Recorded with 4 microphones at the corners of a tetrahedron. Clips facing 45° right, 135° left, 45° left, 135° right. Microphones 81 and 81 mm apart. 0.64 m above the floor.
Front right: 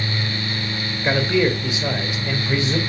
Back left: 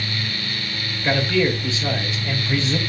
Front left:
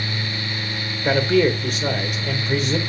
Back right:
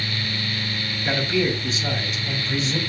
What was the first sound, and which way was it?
A man speaking, 25° left.